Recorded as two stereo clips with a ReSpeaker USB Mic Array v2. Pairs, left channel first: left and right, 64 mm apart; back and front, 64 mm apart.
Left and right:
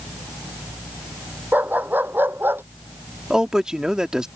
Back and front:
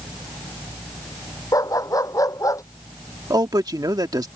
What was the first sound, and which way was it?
A dog barking, 150° right.